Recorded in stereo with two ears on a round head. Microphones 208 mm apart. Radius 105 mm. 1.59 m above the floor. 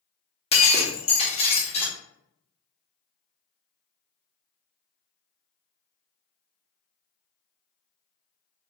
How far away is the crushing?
No crushing in this recording.